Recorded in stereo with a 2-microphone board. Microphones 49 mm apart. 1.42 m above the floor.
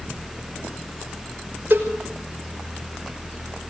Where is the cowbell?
40° right (ahead or behind), 5.5 m.